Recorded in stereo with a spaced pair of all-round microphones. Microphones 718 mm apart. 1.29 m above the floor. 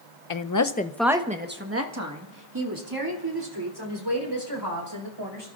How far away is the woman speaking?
About 0.6 m.